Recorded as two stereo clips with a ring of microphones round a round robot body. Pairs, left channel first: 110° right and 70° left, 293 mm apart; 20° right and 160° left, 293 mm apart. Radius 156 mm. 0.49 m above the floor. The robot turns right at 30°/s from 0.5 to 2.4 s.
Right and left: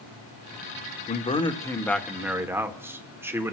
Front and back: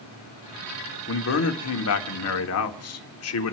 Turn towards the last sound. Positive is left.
turn(degrees=-15)